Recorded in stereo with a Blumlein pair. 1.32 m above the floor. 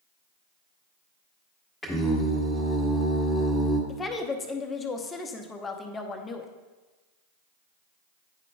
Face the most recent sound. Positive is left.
turn(degrees=15)